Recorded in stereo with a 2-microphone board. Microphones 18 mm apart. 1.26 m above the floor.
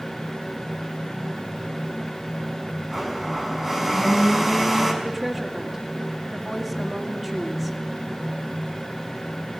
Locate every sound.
2.9 s a blender: 20° right (ahead or behind), 5 m
5.0 s a woman speaking: 15° right (ahead or behind), 2.5 m